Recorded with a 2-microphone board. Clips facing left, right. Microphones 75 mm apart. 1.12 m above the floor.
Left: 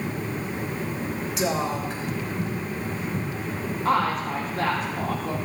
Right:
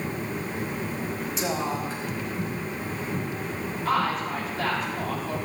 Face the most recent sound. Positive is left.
turn(degrees=55)  # may be behind; listen again after turning